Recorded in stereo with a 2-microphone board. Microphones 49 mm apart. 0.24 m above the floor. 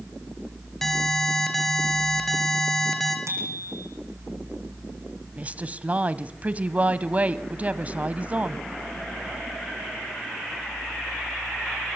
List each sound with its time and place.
0.8 s an alarm: 10° left (ahead or behind), 4 m
3.3 s a bicycle bell: 85° right, 10 m
5.4 s a woman speaking: 30° right (ahead or behind), 1.3 m